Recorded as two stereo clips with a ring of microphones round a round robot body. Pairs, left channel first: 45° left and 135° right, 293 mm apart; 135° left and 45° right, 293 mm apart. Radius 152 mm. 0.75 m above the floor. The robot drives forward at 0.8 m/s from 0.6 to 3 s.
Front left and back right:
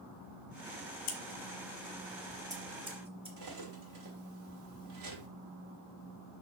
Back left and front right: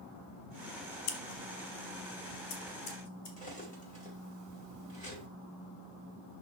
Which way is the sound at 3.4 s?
155° right.